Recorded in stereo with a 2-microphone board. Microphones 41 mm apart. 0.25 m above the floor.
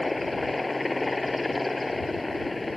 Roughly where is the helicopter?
Centre.